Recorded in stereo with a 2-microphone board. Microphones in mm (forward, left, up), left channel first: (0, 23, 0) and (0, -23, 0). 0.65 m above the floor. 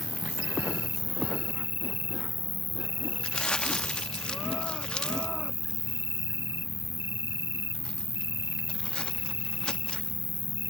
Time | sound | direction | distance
0.0 | an insect | 80° right | ?
3.2 | crumpling | 20° left (ahead or behind) | ?